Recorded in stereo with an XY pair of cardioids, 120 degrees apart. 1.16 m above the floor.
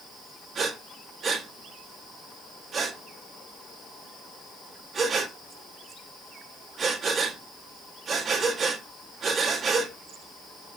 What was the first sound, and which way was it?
Breathing, 40° right.